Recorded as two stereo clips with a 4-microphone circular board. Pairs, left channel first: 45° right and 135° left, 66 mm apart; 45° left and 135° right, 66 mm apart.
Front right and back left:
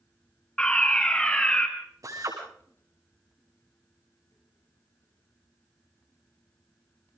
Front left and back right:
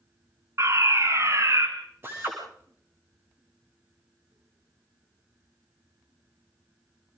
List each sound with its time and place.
0.6 s a fire alarm: 115° right, 3.5 m
2.0 s a drill: 170° left, 8 m